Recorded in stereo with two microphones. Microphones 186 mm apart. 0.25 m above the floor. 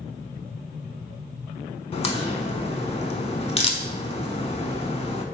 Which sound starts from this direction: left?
A crack, at 1.9 s.